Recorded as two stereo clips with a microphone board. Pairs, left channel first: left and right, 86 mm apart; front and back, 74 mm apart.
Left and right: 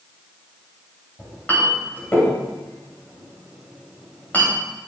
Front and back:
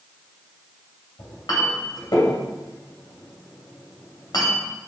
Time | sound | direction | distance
1.2 | a clink | 20° left | 3 m